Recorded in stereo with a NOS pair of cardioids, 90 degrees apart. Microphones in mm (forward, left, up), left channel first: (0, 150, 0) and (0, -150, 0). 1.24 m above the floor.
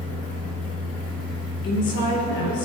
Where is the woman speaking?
50° left, 5 m.